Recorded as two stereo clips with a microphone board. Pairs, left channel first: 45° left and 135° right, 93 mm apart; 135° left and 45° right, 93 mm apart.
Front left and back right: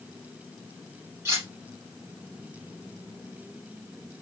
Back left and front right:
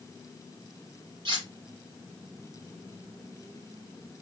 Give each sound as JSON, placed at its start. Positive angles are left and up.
{"t": 1.2, "sound": "cutlery clinking", "azimuth_deg": -75, "distance_m": 2.5}